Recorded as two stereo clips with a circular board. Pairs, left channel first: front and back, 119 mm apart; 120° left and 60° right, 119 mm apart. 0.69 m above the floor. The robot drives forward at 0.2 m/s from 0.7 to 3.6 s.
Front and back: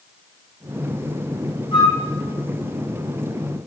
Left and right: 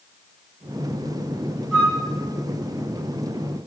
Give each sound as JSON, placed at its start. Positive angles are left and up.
{"t": 1.7, "sound": "a flute", "azimuth_deg": 45, "distance_m": 1.9}